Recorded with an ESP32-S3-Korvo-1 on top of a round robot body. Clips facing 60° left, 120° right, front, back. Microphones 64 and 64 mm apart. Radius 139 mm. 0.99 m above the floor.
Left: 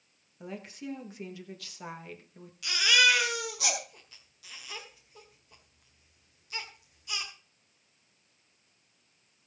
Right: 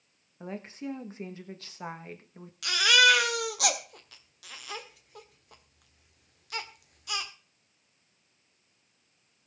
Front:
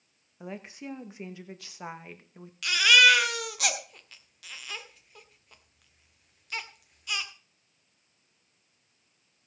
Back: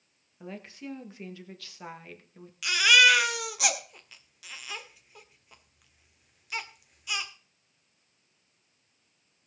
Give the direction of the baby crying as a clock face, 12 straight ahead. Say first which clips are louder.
Right 3 dB, front 1 dB; 3 o'clock.